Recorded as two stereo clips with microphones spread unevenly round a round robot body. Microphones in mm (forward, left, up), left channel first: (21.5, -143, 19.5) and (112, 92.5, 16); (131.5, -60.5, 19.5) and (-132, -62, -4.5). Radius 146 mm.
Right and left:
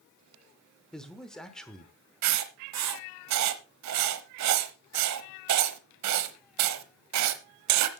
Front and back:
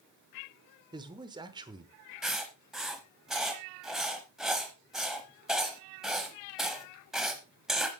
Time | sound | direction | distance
0.9 | a man speaking | 165° left | 1.0 m
2.2 | writing | 95° left | 0.9 m